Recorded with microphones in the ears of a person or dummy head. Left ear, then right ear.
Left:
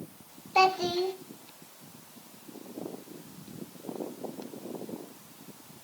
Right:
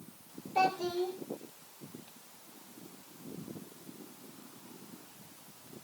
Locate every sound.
0.6 s a child speaking: 50° left (ahead or behind), 3 m